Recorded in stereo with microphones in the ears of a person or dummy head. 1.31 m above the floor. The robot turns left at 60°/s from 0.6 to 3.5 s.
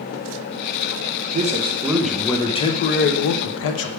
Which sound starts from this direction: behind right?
A man speaking, at 1.3 s.